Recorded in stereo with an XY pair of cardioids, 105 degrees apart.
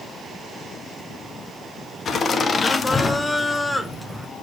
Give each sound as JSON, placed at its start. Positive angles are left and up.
{"t": 2.0, "sound": "laughter", "azimuth_deg": 50, "distance_m": 1.3}